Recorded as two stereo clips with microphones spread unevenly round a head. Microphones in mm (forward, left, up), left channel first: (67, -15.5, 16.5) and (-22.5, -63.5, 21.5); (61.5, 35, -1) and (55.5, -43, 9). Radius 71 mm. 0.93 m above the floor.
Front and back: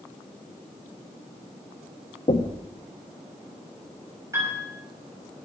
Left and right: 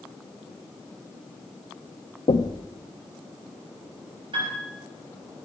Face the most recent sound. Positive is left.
turn(degrees=-90)